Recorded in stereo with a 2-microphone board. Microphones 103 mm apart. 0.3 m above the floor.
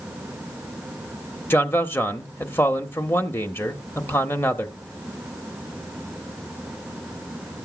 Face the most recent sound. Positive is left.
turn(degrees=20)  # may be behind; listen again after turning